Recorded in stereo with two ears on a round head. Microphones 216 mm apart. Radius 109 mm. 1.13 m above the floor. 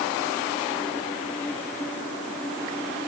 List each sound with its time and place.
Only background noise.